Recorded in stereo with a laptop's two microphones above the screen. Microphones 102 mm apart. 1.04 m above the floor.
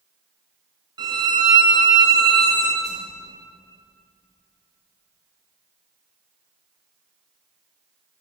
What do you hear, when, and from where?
1.0 s a violin: 45° right (ahead or behind), 0.6 m
2.8 s a whoosh: 45° right (ahead or behind), 2 m